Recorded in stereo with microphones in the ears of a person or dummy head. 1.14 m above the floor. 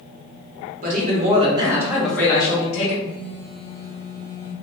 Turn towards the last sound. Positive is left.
turn(degrees=-25)  # may be behind; listen again after turning